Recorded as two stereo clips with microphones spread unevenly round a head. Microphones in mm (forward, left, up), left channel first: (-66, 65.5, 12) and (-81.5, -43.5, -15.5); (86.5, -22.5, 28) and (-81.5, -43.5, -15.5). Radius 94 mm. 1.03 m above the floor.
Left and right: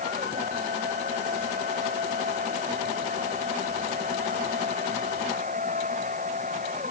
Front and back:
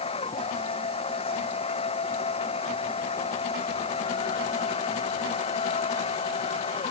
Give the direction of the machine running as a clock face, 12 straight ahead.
2 o'clock.